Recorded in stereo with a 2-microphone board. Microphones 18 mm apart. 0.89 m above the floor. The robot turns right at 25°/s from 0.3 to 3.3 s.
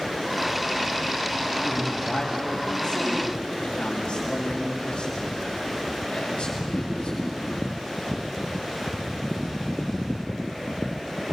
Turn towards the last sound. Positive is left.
turn(degrees=60)